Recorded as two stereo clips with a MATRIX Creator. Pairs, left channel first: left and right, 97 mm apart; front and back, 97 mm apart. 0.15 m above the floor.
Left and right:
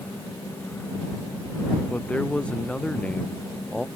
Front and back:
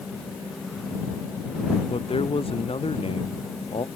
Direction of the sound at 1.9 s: 10° left.